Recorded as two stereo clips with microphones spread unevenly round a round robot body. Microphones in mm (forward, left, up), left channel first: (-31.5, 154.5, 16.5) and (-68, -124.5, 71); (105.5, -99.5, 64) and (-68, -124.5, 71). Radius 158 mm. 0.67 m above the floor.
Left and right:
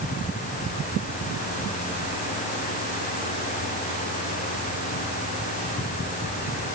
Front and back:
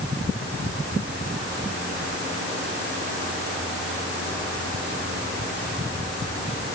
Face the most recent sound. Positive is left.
No sound to turn to.